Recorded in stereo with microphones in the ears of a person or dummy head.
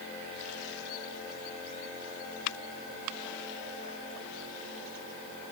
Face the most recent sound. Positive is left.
No sound to turn to.